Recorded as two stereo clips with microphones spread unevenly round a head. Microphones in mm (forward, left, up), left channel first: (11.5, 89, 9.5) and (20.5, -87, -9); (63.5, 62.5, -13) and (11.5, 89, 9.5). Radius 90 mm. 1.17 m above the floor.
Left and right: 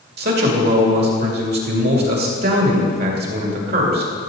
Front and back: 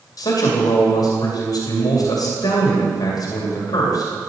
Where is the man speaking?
55° right, 2.5 m.